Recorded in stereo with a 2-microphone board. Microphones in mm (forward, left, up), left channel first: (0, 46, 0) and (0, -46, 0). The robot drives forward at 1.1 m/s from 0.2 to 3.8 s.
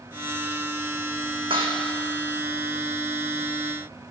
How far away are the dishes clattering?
About 4 m.